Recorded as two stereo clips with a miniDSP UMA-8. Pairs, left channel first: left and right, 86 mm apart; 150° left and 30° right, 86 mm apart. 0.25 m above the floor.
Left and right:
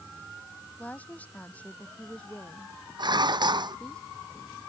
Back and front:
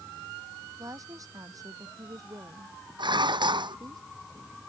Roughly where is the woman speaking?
Ahead.